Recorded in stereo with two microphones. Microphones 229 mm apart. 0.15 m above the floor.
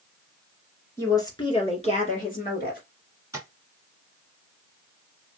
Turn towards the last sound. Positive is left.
turn(degrees=-15)  # may be behind; listen again after turning